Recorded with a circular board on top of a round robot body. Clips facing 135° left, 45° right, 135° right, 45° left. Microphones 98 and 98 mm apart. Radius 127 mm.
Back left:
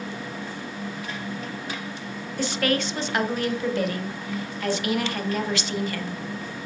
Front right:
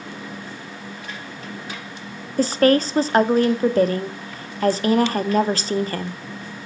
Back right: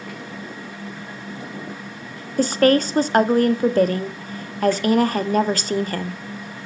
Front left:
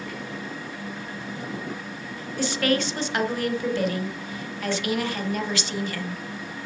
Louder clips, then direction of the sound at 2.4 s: Front right 9 dB, back right 8 dB; 95° right.